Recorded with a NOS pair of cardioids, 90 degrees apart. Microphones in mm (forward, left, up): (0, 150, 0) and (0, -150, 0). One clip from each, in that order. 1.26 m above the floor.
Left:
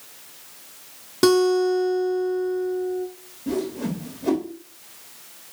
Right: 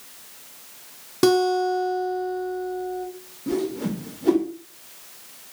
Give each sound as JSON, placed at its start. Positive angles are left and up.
{"t": 1.2, "sound": "a guitar", "azimuth_deg": 5, "distance_m": 0.7}
{"t": 3.5, "sound": "a whoosh", "azimuth_deg": -5, "distance_m": 0.9}